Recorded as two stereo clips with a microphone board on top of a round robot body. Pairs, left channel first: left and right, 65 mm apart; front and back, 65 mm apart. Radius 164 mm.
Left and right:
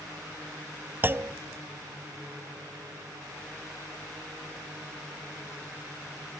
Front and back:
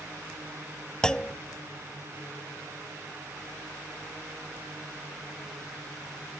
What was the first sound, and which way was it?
A clunk, 70° right.